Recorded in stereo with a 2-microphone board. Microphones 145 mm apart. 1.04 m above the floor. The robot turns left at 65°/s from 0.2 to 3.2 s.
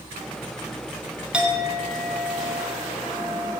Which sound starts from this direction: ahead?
A clink, at 1.3 s.